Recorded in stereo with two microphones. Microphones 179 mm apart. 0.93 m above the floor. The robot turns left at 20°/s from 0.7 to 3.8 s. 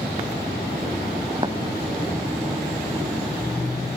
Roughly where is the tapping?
Right.